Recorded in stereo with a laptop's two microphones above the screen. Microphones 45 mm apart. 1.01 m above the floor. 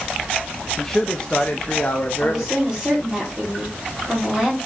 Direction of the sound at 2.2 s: 10° right (ahead or behind).